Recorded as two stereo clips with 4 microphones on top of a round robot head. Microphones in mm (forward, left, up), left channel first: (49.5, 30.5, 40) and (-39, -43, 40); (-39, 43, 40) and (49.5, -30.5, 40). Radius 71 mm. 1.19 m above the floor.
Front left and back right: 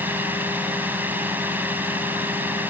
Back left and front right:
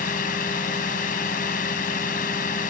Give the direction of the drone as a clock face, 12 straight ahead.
7 o'clock.